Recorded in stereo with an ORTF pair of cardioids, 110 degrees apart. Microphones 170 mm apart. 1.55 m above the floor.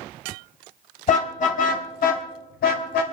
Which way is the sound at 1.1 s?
50° left.